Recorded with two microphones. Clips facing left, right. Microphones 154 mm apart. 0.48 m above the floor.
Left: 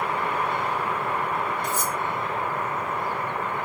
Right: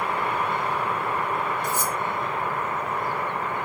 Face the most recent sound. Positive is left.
turn(degrees=-40)  # may be behind; listen again after turning